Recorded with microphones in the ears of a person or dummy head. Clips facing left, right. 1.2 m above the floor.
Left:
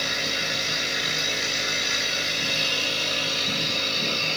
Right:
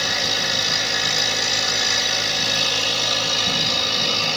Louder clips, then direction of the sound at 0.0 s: Right 4 dB; 75° right (ahead or behind).